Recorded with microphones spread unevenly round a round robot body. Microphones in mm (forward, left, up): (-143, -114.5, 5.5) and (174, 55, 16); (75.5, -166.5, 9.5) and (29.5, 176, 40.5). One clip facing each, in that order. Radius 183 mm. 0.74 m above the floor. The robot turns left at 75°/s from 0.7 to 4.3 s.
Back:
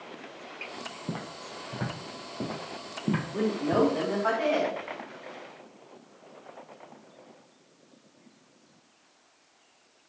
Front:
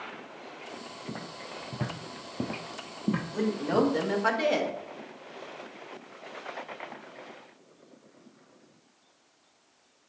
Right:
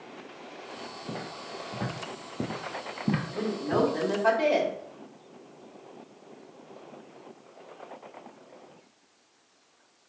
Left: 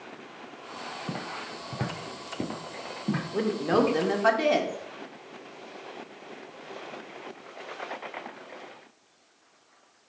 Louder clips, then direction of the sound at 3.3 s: Back 1 dB, left 6 dB; 115° left.